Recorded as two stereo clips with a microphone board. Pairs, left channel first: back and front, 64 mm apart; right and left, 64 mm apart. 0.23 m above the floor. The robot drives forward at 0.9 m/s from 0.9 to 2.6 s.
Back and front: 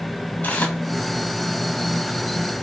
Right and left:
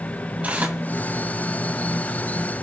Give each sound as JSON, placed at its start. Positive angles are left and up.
{"t": 0.4, "sound": "tearing paper", "azimuth_deg": 135, "distance_m": 1.9}